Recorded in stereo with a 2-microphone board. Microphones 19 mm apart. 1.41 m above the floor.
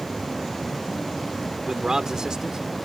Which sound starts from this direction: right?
A man speaking, at 1.7 s.